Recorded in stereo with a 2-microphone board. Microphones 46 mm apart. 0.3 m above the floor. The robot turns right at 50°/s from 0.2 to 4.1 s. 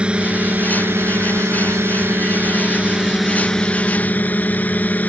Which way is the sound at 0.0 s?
155° right.